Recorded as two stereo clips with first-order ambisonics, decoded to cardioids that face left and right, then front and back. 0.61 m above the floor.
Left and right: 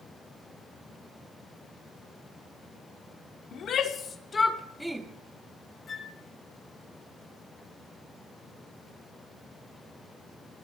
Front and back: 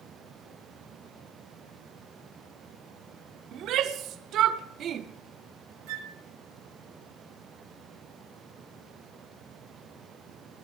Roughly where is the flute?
Behind.